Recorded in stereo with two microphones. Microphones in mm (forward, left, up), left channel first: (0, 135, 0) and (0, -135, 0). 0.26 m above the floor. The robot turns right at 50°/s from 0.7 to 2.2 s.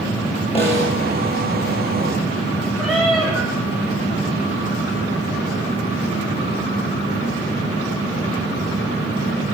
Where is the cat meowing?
Centre (ahead or behind), 4 m.